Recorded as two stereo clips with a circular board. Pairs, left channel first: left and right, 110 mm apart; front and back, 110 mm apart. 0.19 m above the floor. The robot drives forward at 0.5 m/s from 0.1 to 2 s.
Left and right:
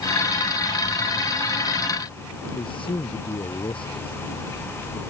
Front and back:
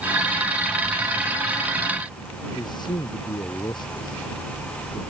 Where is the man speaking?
50° left.